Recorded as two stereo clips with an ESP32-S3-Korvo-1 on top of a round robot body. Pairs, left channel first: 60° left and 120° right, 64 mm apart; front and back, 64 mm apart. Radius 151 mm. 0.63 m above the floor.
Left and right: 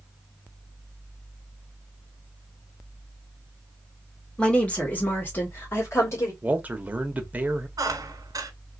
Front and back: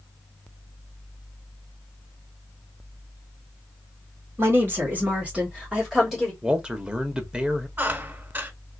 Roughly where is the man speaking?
Behind right.